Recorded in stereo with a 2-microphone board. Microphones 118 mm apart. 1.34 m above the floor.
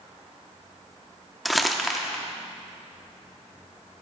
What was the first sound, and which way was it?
Crumpling, centre (ahead or behind).